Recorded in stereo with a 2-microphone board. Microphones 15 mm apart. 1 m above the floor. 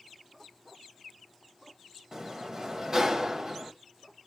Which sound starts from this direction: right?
A sliding door, at 2.1 s.